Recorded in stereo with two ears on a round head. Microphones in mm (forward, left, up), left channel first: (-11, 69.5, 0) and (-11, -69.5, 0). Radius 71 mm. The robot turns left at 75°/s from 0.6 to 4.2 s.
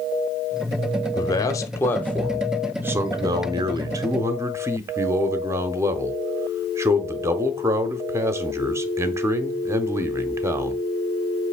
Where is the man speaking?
25° left (ahead or behind), 0.8 m; by 10.8 s 15° right (ahead or behind), 0.8 m.